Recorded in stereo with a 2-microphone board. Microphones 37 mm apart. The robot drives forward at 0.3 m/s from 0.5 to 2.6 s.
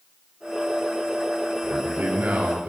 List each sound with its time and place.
1.6 s a man speaking: 55° right (ahead or behind), 5.5 m